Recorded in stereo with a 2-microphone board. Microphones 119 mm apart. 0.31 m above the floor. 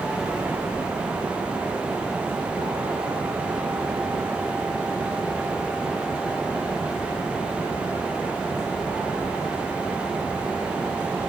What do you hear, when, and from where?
Only background noise.